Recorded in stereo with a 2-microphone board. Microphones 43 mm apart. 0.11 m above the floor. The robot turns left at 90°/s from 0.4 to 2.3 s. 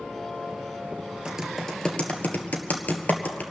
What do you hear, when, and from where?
1.2 s typing on a keyboard: 20° right (ahead or behind), 1.5 m; by 3.4 s 45° left (ahead or behind), 1.5 m